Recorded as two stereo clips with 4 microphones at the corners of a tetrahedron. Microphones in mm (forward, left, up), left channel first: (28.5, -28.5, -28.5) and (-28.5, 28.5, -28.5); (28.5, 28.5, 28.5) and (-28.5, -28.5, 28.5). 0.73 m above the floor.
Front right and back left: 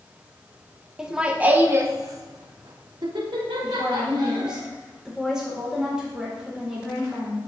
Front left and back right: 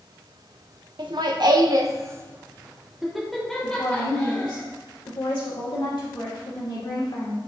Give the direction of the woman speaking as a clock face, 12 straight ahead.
10 o'clock.